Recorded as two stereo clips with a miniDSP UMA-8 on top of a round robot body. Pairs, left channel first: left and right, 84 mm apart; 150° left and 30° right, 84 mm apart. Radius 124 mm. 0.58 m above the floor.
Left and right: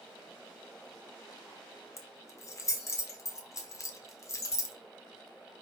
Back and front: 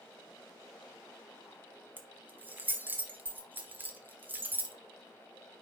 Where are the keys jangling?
35° left, 1.4 m.